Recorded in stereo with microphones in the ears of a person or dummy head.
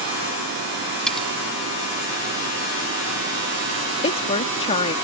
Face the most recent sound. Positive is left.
turn(degrees=35)  # may be behind; listen again after turning